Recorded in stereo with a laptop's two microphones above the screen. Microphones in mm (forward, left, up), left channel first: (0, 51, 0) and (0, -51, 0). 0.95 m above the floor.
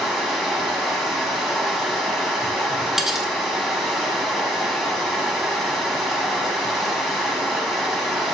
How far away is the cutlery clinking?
About 1.3 m.